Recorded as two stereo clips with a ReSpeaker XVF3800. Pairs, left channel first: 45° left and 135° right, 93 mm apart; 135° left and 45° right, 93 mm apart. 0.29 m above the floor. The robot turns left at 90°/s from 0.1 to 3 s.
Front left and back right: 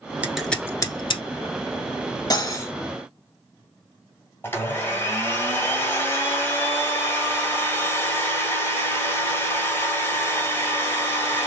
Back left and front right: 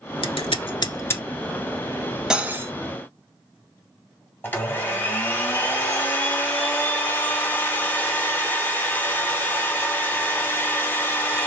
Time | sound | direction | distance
0.2 | scissors | 150° left | 0.7 m
2.3 | cutlery clinking | 35° left | 0.6 m
4.4 | a blender | 90° left | 1.8 m